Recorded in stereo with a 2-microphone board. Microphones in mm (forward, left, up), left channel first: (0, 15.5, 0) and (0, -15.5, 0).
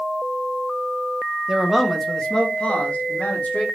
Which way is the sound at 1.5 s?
15° right (ahead or behind).